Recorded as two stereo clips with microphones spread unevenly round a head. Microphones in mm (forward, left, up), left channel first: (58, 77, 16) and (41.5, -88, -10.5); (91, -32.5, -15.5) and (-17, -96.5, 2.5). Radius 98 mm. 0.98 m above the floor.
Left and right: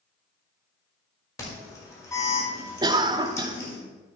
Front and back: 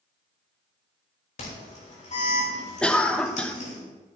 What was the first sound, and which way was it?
An alarm, 15° left.